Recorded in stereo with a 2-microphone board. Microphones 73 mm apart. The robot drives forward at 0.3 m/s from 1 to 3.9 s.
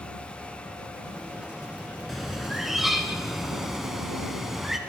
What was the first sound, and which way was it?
A bird, 5° right (ahead or behind).